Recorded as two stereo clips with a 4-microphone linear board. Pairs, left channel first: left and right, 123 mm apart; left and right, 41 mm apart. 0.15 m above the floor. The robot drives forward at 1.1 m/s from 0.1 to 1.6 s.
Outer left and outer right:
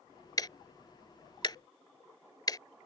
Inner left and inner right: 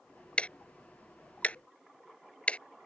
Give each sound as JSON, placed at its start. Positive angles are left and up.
{"t": 0.4, "sound": "ticking", "side_deg": 30}